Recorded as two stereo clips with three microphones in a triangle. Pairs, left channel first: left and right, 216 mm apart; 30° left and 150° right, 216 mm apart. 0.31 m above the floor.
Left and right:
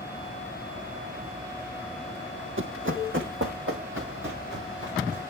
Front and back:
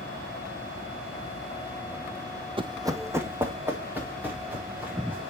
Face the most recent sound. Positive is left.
turn(degrees=-65)